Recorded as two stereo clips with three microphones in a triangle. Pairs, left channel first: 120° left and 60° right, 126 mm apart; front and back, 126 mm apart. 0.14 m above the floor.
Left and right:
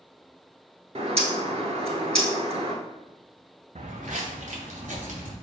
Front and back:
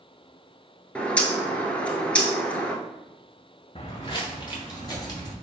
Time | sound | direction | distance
0.9 | a bird | 80° right | 0.6 m
3.8 | footsteps | 40° right | 0.6 m